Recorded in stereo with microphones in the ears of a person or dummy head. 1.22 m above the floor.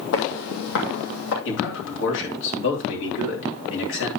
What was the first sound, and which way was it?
Footsteps, 60° left (ahead or behind).